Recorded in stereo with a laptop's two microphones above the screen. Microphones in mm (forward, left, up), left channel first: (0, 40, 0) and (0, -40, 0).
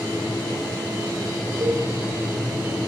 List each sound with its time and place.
1.6 s a cowbell: 65° right (ahead or behind), 1.7 m